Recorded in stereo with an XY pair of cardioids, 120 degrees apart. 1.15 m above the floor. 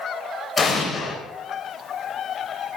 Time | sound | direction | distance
0.6 | an explosion | 30° left | 3.5 m